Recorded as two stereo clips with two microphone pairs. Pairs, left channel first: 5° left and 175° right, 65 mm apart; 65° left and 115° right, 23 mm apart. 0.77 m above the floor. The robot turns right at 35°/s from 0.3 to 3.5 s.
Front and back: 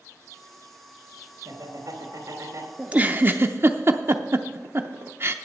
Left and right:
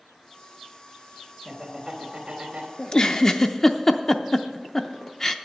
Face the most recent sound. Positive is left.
turn(degrees=135)